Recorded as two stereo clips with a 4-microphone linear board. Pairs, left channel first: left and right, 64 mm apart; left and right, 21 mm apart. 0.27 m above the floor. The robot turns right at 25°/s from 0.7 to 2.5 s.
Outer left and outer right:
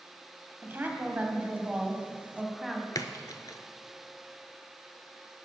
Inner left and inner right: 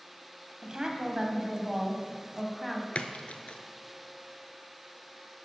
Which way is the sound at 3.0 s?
75° left (ahead or behind).